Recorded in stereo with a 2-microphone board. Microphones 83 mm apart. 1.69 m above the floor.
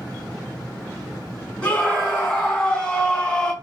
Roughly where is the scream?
Centre.